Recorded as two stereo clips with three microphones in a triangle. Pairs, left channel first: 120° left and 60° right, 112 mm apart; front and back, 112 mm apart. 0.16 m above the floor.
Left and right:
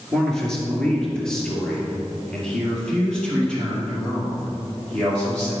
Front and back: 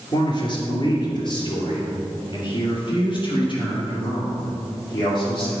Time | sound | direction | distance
0.1 | a man speaking | 35° left | 2.5 m